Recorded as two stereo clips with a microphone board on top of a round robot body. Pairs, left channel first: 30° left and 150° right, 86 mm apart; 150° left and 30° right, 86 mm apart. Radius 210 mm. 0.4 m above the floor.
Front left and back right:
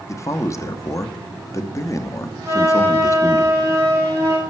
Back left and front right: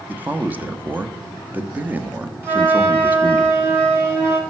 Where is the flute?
95° right, 3 m.